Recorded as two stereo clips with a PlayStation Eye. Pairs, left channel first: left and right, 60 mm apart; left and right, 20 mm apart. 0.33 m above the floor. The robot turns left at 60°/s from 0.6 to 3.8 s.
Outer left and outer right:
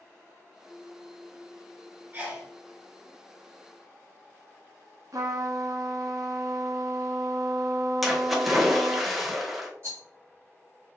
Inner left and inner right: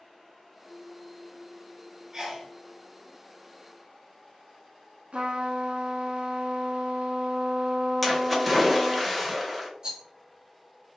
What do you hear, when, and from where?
2.1 s a sneeze: 30° right (ahead or behind), 1.6 m; by 2.5 s 35° right (ahead or behind), 1.6 m
5.1 s a trumpet: 65° right (ahead or behind), 0.7 m
8.0 s a splash: centre (ahead or behind), 0.8 m
9.8 s a rattle: 45° right (ahead or behind), 1.4 m